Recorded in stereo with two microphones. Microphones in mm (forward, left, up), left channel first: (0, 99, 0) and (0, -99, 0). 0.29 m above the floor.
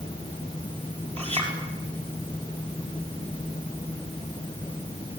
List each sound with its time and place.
1.2 s a clink: 30° right (ahead or behind), 5 m